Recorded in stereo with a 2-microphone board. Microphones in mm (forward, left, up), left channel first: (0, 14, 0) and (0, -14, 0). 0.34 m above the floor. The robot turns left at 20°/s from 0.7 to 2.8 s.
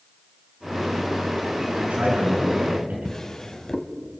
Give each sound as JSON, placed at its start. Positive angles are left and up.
{"t": 1.8, "sound": "a man speaking", "side_deg": -55, "distance_m": 5.0}
{"t": 3.0, "sound": "a drawer", "side_deg": 15, "distance_m": 1.4}